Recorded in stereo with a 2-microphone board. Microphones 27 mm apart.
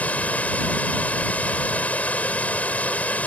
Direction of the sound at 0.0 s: 75° left (ahead or behind).